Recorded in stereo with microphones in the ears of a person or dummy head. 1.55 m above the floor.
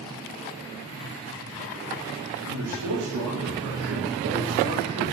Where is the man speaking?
85° right, 3 m; by 5.1 s 60° right (ahead or behind), 2 m.